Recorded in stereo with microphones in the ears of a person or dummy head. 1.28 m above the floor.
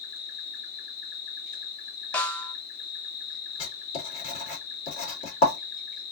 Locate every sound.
0.0 s an insect: 35° left (ahead or behind), 2 m
2.1 s a snare drum: 15° left (ahead or behind), 0.5 m
3.6 s writing: 30° left (ahead or behind), 2.5 m